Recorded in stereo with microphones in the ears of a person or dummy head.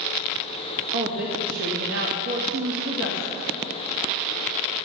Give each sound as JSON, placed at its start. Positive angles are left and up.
{"t": 0.9, "sound": "a woman speaking", "side_deg": -55, "distance_m": 2.0}